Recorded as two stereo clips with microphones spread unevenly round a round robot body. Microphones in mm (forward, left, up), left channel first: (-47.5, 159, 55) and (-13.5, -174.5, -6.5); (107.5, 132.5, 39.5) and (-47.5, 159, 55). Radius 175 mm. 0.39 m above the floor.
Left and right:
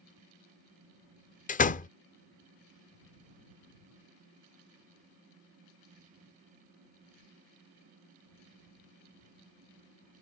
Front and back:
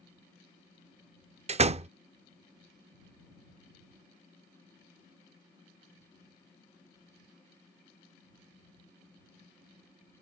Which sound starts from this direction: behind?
A door slam, at 1.5 s.